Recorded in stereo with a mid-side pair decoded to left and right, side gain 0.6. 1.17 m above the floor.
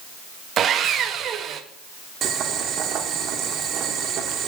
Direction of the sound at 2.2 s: 55° right.